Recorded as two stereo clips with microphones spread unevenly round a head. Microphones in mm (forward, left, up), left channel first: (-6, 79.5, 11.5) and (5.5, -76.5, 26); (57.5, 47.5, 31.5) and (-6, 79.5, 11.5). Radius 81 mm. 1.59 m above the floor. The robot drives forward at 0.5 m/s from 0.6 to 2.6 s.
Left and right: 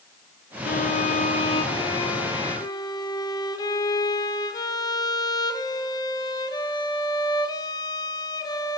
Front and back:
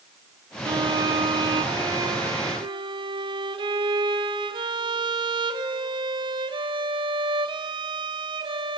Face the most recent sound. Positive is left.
turn(degrees=160)